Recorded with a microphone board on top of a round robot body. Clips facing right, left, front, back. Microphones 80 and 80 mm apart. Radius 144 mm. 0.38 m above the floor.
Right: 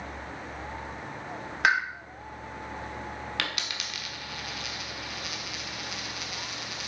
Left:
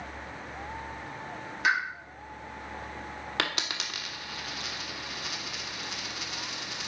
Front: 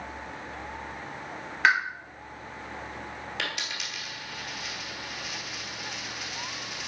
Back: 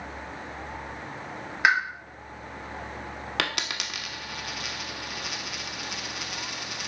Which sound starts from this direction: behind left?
A dropped coin, at 3.4 s.